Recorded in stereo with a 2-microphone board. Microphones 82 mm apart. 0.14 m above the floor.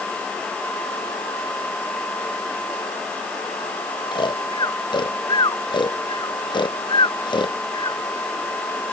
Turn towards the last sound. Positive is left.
turn(degrees=65)  # may be behind; listen again after turning